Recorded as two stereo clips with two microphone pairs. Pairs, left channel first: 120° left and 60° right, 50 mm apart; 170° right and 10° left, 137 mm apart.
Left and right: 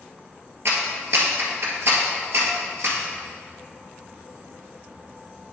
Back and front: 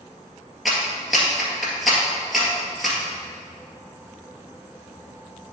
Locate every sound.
0.7 s a clap: 80° right, 1.8 m